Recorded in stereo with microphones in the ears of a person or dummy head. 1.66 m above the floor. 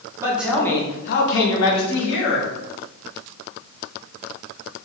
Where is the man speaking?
10° right (ahead or behind), 1.1 m; by 2.5 s 80° left, 1.8 m.